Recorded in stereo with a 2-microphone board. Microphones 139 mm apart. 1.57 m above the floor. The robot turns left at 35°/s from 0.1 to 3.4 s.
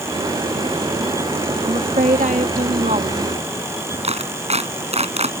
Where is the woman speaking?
65° right; by 3.3 s 120° right.